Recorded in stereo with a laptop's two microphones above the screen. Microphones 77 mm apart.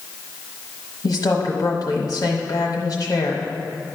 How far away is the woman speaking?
About 1.1 m.